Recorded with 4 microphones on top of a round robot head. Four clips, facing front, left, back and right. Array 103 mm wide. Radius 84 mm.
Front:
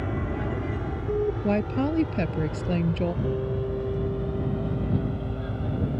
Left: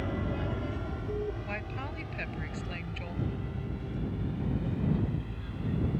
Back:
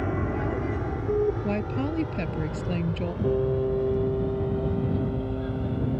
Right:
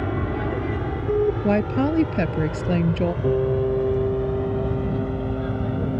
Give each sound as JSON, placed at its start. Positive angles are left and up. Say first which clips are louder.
{"t": 0.0, "sound": "an aircraft", "louder": "right 8 dB, back 2 dB", "azimuth_deg": -115}
{"t": 1.4, "sound": "a woman speaking", "louder": "right 18 dB, front 3 dB", "azimuth_deg": -80}
{"t": 3.2, "sound": "a piano", "louder": "right 18 dB, back 4 dB", "azimuth_deg": -110}